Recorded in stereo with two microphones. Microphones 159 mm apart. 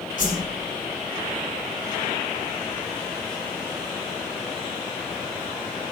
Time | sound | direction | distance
0.2 | a whoosh | 60° left (ahead or behind) | 5 m